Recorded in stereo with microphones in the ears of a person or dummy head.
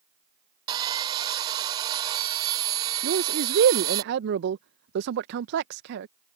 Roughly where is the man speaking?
Right.